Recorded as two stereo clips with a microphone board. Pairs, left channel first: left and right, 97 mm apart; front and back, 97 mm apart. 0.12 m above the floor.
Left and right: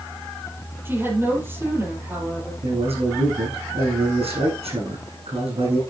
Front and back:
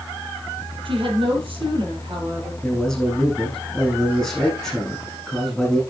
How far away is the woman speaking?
About 4 m.